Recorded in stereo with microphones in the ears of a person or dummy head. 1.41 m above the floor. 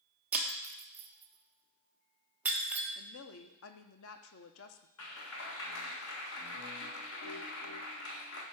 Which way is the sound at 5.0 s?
80° left.